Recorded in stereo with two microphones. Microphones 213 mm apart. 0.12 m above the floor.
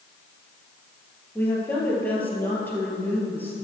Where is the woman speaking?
10° left (ahead or behind), 2 m.